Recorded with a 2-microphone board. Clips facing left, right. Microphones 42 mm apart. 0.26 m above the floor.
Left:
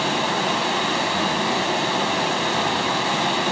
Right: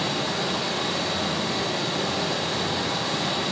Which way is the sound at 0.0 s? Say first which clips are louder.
Left 5 dB; 60° left (ahead or behind).